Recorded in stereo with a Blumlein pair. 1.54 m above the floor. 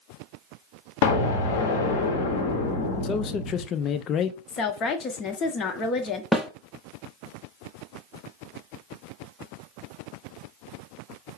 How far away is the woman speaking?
About 0.9 m.